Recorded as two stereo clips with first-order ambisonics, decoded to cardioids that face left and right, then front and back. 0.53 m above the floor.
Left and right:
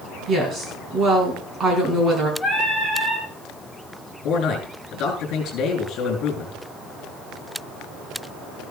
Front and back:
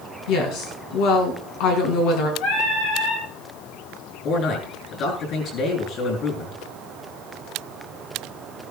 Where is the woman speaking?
25° right, 5 m.